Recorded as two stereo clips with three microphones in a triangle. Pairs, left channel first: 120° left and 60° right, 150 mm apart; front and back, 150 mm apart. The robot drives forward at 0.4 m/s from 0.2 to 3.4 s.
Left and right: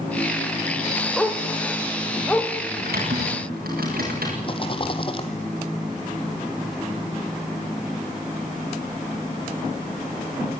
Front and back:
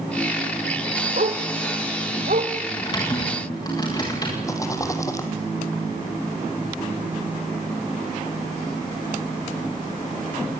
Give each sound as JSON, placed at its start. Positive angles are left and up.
{"t": 1.2, "sound": "a dog barking", "azimuth_deg": -150, "distance_m": 2.0}
{"t": 2.8, "sound": "typing on a keyboard", "azimuth_deg": -60, "distance_m": 9.5}
{"t": 4.4, "sound": "a rattle", "azimuth_deg": 65, "distance_m": 2.0}